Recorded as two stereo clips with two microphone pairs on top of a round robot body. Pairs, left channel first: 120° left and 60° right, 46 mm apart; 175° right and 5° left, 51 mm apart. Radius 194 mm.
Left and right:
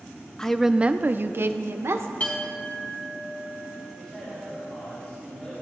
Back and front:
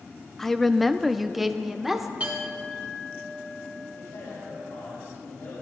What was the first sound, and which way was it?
A woman speaking, 95° left.